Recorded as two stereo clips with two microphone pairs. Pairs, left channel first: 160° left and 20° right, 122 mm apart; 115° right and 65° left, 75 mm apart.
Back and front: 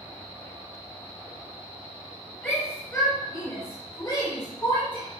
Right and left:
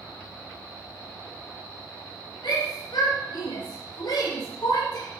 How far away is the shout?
About 3.5 m.